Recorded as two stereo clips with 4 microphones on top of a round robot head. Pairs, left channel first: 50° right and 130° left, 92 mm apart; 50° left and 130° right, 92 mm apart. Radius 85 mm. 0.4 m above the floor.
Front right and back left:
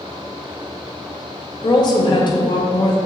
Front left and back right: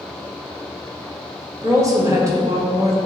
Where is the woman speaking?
80° right, 1.6 m.